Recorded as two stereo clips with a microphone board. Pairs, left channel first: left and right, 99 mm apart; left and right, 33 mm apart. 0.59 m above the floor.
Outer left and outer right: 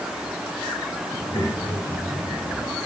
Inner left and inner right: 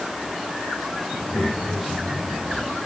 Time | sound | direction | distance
1.1 | a child speaking | 25° left (ahead or behind) | 8.5 m